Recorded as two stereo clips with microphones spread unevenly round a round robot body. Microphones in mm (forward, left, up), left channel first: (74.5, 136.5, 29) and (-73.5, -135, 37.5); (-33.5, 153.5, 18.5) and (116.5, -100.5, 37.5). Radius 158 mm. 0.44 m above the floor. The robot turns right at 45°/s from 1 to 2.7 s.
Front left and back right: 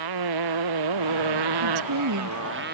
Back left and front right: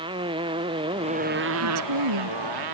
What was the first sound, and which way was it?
A motorcycle, 135° right.